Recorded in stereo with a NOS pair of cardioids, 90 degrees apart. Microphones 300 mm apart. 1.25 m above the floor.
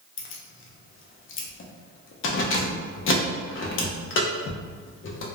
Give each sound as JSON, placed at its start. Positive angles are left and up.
{"t": 0.2, "sound": "keys jangling", "azimuth_deg": 45, "distance_m": 0.6}